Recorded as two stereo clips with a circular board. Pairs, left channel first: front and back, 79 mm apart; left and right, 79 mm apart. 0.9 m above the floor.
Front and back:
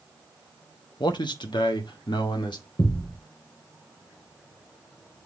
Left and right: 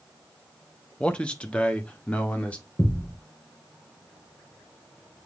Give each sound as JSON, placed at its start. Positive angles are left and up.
{"t": 1.0, "sound": "a man speaking", "azimuth_deg": 15, "distance_m": 1.1}
{"t": 2.8, "sound": "a thud", "azimuth_deg": 40, "distance_m": 3.0}